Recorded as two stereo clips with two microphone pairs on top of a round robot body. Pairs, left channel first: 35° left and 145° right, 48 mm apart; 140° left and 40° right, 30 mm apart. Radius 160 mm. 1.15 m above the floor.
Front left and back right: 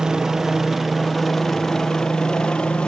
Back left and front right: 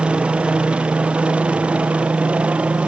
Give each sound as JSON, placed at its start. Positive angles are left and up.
{"t": 0.0, "sound": "a helicopter", "azimuth_deg": -60}